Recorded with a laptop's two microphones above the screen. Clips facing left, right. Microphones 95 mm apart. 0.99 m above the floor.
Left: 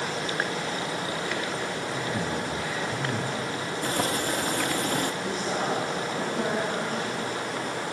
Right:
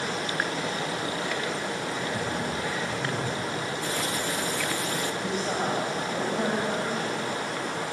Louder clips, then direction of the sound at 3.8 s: Left 2 dB; 45° left (ahead or behind).